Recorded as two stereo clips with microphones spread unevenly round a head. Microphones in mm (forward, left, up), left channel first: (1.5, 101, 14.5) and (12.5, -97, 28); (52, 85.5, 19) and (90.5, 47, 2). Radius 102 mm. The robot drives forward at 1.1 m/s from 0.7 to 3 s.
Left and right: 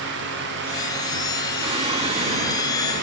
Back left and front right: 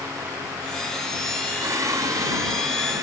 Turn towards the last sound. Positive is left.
turn(degrees=-35)